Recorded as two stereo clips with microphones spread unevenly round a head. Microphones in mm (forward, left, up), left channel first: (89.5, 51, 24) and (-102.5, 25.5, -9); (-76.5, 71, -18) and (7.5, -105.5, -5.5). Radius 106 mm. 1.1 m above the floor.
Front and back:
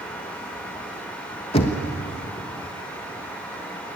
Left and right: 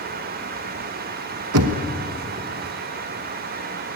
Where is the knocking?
60° right, 1.2 m.